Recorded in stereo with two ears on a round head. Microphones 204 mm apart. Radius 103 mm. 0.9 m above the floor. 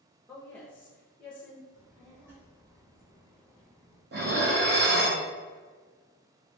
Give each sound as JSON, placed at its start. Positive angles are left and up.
{"t": 0.3, "sound": "a woman speaking", "side_deg": 5, "distance_m": 0.7}
{"t": 1.7, "sound": "a child speaking", "side_deg": -10, "distance_m": 0.8}
{"t": 4.1, "sound": "dishes clattering", "side_deg": -50, "distance_m": 0.6}